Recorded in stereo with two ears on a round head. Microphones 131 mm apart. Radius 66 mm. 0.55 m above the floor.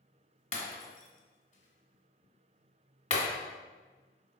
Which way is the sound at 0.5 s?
45° left (ahead or behind).